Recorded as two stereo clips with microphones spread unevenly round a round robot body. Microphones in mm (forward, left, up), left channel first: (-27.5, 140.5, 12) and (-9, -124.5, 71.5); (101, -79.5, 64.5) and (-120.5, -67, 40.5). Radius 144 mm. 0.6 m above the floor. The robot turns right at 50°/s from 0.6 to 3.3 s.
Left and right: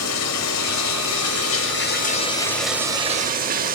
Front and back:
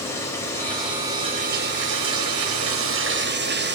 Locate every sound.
0.0 s running water: 80° left, 2.5 m; by 3.8 s 145° right, 2.5 m